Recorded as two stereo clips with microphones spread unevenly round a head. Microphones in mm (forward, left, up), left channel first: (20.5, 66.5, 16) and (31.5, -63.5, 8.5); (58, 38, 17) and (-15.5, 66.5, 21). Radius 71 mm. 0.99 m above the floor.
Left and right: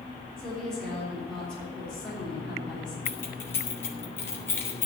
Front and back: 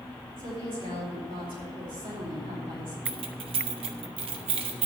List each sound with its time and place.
0.4 s a woman speaking: straight behind, 3.5 m
3.0 s keys jangling: 170° left, 1.0 m